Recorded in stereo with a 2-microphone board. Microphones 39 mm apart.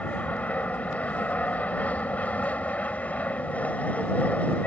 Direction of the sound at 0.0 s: 40° left (ahead or behind).